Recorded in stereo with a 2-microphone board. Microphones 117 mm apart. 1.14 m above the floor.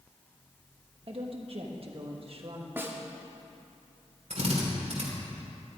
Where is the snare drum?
20° right (ahead or behind), 1.2 m.